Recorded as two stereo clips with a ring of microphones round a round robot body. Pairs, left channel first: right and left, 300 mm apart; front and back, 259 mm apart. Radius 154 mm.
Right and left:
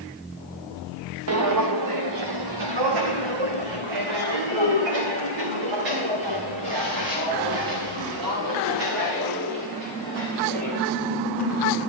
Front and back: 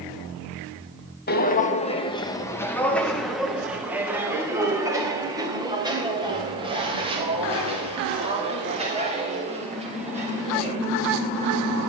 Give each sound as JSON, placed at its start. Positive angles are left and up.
{"t": 1.3, "sound": "footsteps", "azimuth_deg": 50, "distance_m": 1.1}